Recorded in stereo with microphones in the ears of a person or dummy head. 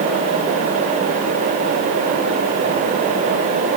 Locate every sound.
Only background noise.